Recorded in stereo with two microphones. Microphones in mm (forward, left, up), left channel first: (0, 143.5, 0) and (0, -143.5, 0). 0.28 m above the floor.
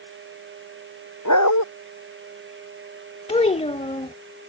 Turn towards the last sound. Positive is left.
turn(degrees=20)  # may be behind; listen again after turning